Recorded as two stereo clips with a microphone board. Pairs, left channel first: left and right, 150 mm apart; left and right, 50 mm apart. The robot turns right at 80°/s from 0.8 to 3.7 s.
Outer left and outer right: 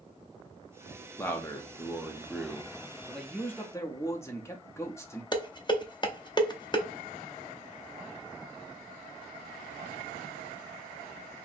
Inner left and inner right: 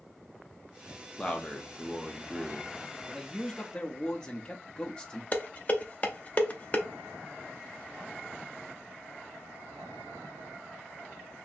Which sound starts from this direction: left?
Dishes clattering, at 5.3 s.